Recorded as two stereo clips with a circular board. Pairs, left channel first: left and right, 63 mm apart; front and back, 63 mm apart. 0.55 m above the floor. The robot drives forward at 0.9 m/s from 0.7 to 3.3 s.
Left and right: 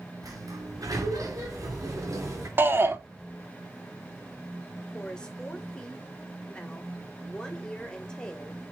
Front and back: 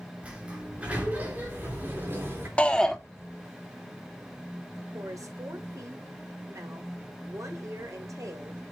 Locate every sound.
0.2 s a sliding door: 110° right, 4 m; by 2.5 s 130° right, 5 m
2.6 s a shout: 60° right, 1.5 m; by 3.0 s 80° right, 1.4 m
4.9 s a woman speaking: 165° left, 2.5 m